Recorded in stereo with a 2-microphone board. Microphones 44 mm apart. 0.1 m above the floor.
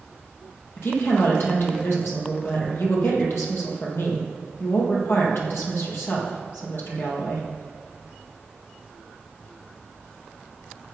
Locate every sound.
0.8 s a woman speaking: 65° left (ahead or behind), 3.5 m